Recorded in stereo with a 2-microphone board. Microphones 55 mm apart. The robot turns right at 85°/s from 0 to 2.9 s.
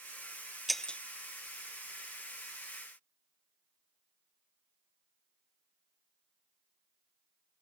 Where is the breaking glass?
5° right (ahead or behind); by 1.0 s 25° left (ahead or behind).